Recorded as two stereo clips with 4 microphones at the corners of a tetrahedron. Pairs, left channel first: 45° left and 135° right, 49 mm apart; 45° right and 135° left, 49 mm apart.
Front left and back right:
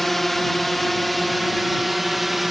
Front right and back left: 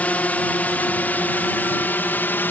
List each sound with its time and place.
0.0 s a drone: 40° right; by 2.5 s 50° right